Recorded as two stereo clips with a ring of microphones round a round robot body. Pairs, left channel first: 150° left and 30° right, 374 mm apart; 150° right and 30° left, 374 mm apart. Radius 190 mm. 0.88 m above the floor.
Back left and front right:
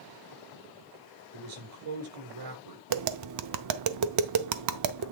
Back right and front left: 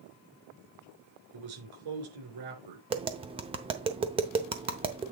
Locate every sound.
1.3 s a man speaking: 5° left, 3.5 m
2.9 s tapping: 40° right, 0.6 m